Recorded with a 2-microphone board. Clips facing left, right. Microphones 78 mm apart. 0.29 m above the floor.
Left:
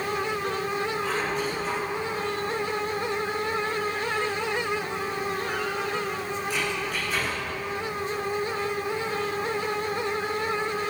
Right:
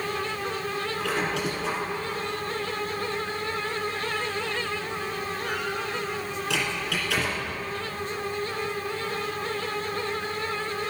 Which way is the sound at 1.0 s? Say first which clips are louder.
Even; 80° right.